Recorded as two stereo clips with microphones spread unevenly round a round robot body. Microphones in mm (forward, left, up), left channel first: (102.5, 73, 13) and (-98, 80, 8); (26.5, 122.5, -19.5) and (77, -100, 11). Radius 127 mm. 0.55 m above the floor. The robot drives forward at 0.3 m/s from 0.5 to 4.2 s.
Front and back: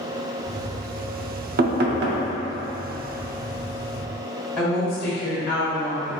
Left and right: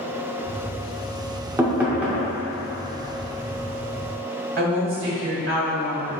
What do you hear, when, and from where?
1.6 s knocking: 160° right, 0.5 m; by 2.3 s 170° right, 0.7 m
4.6 s a woman speaking: 85° right, 0.8 m